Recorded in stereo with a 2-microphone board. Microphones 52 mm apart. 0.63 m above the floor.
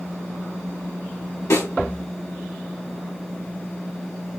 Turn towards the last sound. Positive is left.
turn(degrees=80)